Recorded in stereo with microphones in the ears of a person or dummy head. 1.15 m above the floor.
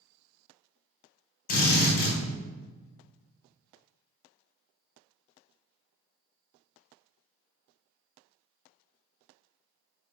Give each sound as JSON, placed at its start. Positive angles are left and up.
{"t": 1.5, "sound": "a drill", "side_deg": 45, "distance_m": 0.8}